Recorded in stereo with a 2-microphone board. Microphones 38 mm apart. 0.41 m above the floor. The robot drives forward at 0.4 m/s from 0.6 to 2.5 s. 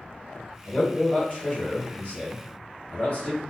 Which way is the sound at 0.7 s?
40° left (ahead or behind).